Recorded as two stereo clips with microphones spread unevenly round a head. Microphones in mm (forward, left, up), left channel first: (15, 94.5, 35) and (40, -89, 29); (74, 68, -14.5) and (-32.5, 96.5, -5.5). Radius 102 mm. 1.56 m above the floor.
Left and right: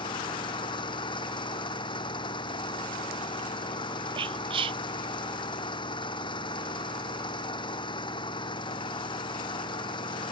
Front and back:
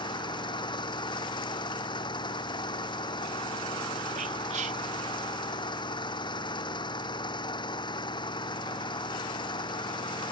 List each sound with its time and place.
0.0 s an engine running: 35° left
4.2 s whispering: 145° right